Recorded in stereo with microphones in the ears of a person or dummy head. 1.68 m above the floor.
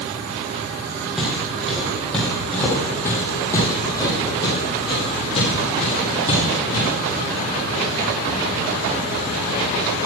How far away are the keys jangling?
No keys jangling in this recording.